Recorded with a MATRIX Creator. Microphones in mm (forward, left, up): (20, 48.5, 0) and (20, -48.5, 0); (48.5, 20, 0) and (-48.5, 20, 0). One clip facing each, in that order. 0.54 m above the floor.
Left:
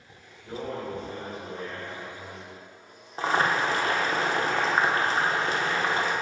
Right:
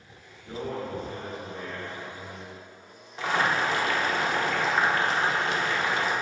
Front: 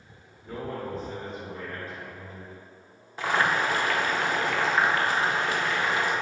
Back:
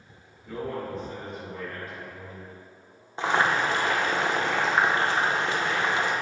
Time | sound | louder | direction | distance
0.4 | a man speaking | even, back 1 dB | 35° left | 1.5 m
3.2 | boiling | left 1 dB, back 1 dB | 125° left | 0.6 m